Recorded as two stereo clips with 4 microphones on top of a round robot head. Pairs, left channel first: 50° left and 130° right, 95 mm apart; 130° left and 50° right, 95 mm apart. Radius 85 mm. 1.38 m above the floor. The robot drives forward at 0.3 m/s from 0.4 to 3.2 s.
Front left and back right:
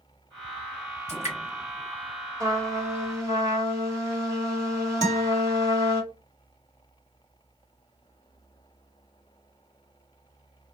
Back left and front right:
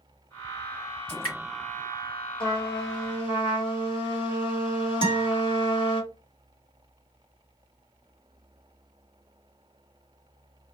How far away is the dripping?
About 1.6 m.